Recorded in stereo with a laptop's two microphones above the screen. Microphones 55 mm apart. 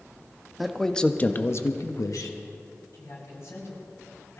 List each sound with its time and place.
0.6 s a man speaking: centre (ahead or behind), 1.3 m; by 2.8 s 75° left (ahead or behind), 1.8 m
2.9 s a man speaking: 50° left (ahead or behind), 7 m